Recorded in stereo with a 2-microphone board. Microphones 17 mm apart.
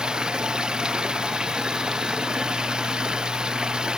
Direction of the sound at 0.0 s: 60° right (ahead or behind).